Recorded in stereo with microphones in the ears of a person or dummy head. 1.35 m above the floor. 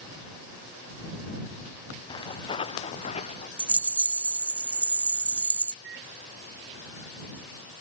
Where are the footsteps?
25° left (ahead or behind); by 3.5 s 40° left (ahead or behind).